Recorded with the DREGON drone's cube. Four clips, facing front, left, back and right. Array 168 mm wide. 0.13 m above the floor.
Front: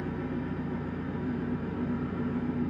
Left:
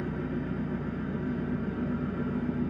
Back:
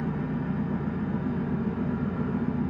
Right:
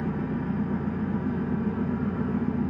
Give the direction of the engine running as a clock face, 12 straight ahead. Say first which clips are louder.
Right 4 dB, back 3 dB; 4 o'clock.